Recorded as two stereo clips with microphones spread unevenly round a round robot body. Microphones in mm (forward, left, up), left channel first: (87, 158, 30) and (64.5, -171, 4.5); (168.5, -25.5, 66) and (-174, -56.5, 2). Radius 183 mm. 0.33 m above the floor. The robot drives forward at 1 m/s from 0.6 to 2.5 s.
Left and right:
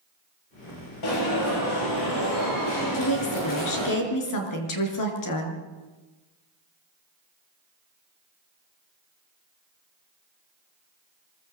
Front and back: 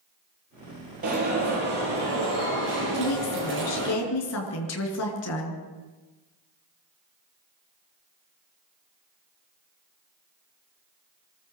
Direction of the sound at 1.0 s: 120° left.